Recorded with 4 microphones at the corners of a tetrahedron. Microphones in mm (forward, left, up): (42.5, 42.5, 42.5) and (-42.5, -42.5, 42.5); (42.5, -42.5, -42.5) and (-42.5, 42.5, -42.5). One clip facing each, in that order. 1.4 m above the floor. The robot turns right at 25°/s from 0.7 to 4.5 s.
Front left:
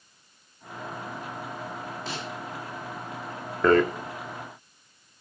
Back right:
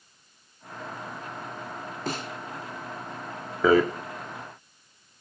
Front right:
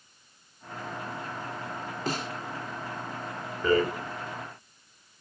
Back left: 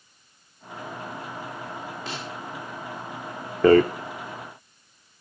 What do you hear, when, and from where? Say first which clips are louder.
2.1 s a snare drum: back right 6 dB, front right 7 dB; 95° right, 3.5 m; by 2.3 s 85° right, 3.5 m
3.6 s a rattle: even, back left 9 dB; 140° left, 1.7 m